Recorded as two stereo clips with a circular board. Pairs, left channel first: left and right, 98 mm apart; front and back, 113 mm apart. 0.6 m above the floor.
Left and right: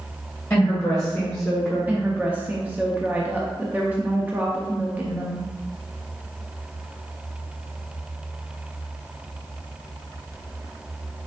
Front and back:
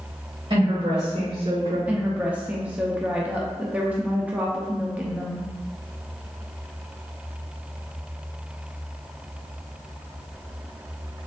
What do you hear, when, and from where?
0.5 s a woman speaking: 165° left, 2 m; by 1.8 s 175° right, 2.5 m
1.9 s a woman speaking: 125° right, 0.6 m